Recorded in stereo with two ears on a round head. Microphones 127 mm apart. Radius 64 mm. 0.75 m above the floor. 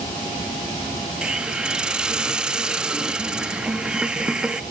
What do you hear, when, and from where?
1.2 s a hiss: 5° right (ahead or behind), 0.7 m